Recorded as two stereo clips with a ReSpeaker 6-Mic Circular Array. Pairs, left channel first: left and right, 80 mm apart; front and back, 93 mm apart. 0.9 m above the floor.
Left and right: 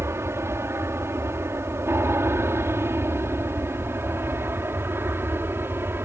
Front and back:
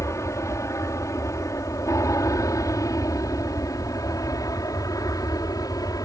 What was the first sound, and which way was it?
An aircraft, 45° right.